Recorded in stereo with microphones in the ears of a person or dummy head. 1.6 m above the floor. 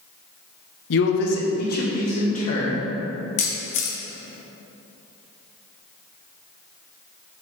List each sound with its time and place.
0.9 s a man speaking: 70° left (ahead or behind), 0.8 m; by 2.9 s 35° left (ahead or behind), 2 m
3.4 s a camera shutter: 40° left (ahead or behind), 1.1 m